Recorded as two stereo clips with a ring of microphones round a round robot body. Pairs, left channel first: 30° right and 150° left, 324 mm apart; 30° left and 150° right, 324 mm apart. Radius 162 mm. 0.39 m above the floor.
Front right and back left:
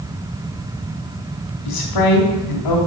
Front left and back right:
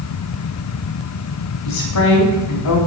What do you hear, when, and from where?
1.6 s a woman speaking: 10° right, 2.5 m